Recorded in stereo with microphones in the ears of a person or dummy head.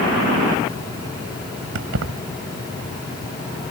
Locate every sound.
1.8 s keys jangling: 70° right (ahead or behind)